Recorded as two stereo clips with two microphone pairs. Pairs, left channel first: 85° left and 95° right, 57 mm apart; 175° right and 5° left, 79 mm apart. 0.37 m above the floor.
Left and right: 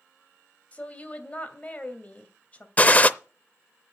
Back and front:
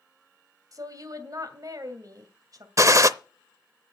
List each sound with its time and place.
0.7 s a woman speaking: 25° left, 2.5 m
2.8 s a gunshot: 30° left, 0.6 m